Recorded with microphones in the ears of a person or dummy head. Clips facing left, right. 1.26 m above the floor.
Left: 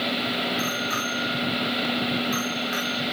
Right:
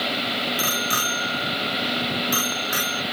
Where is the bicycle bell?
50° right (ahead or behind).